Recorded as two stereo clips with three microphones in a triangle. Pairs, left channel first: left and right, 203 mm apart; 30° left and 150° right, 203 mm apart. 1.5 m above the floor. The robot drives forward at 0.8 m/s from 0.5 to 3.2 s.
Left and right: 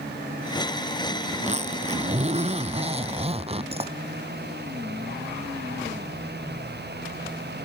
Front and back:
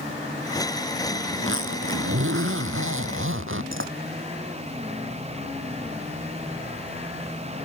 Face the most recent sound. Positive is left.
turn(degrees=-150)